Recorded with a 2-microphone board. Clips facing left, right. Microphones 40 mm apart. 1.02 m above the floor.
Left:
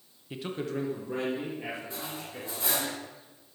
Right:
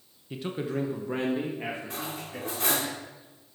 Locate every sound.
0.3 s a man speaking: 10° left (ahead or behind), 0.9 m; by 2.9 s 55° right (ahead or behind), 3.5 m
1.9 s cutlery clinking: 70° right (ahead or behind), 1.9 m